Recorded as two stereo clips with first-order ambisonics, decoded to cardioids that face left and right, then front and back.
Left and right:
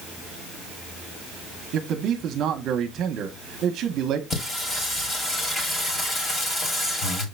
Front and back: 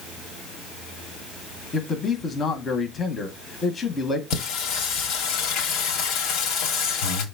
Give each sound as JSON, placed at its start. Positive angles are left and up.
{"t": 1.7, "sound": "a man speaking", "azimuth_deg": -65, "distance_m": 0.9}
{"t": 4.3, "sound": "singing", "azimuth_deg": 25, "distance_m": 1.5}